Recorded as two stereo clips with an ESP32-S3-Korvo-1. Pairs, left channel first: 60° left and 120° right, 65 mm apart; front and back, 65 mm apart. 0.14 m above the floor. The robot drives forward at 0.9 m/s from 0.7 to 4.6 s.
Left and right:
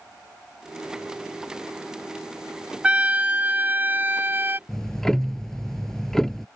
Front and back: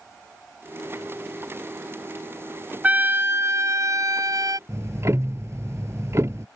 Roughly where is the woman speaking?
I don't hear a woman speaking.